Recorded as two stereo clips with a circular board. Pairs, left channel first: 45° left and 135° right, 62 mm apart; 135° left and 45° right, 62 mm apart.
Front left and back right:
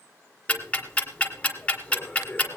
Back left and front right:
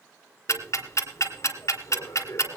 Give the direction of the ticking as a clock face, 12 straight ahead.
8 o'clock.